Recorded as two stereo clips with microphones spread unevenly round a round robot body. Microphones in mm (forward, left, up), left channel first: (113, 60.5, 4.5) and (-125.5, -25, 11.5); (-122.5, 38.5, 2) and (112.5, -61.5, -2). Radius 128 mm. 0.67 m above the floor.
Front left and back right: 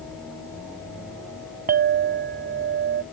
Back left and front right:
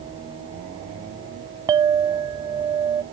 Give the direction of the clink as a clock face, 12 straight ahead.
3 o'clock.